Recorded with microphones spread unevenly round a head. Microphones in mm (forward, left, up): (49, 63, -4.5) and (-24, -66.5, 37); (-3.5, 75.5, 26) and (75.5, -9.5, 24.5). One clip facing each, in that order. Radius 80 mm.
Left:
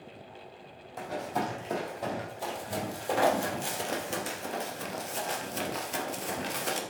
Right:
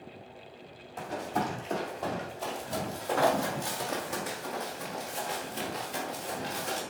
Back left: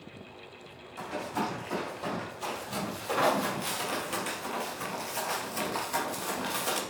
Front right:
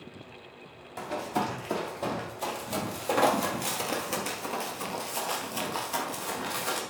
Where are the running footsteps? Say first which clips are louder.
Even, front right 3 dB; 30° right, 3 m; by 6.8 s 55° left, 1.7 m.